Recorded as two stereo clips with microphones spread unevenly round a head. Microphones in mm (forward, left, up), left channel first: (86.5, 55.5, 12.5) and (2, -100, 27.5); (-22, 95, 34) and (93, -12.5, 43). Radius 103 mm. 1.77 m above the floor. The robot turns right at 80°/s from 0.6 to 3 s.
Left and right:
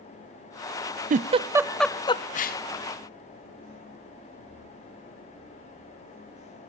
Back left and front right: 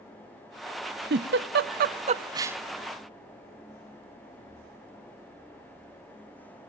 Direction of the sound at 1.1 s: 85° right.